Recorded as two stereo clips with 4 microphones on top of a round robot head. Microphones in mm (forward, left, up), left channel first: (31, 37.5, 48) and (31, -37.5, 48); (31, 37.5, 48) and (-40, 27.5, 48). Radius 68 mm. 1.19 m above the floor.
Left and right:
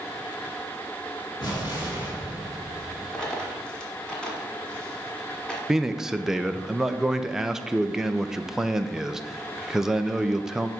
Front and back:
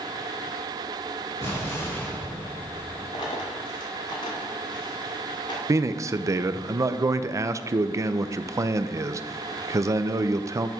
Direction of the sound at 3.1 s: 10° left.